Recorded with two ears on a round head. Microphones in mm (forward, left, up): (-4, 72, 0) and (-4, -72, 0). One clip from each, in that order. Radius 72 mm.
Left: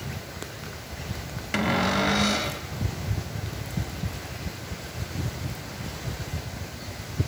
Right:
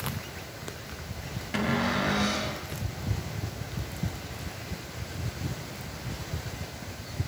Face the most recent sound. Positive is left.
turn(degrees=30)  # may be behind; listen again after turning